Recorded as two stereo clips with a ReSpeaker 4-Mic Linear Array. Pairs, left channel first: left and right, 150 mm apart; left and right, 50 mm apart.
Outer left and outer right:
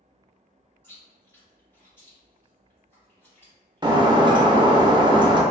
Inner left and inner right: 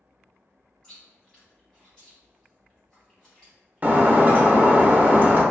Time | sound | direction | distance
0.8 | chewing | 15° left (ahead or behind) | 2.0 m
3.8 | breaking glass | 30° right (ahead or behind) | 0.5 m